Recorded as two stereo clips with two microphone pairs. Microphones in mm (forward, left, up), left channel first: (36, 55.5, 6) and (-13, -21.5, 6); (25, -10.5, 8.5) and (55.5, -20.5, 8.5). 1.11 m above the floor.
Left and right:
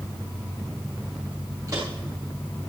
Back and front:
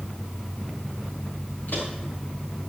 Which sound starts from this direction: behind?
Footsteps, at 1.7 s.